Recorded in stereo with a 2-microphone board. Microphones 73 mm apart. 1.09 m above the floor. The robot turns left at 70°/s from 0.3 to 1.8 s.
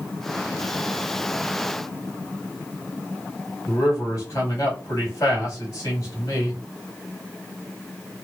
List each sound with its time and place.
3.7 s a man speaking: 45° left (ahead or behind), 2.5 m